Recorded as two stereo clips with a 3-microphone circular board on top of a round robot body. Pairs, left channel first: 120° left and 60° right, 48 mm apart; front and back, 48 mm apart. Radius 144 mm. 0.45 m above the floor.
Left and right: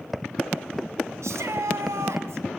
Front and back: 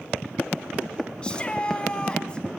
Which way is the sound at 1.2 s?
70° right.